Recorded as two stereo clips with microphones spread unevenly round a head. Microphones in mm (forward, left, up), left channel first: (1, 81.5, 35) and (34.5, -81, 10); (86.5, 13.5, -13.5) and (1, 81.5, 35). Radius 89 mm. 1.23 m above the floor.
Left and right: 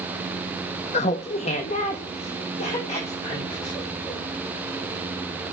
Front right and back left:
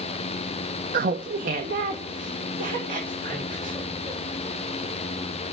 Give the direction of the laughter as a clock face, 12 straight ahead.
7 o'clock.